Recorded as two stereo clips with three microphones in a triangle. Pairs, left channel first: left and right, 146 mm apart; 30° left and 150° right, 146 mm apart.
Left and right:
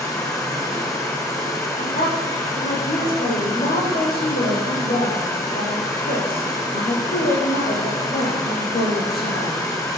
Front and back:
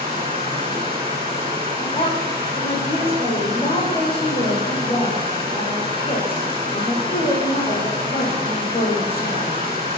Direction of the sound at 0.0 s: 160° left.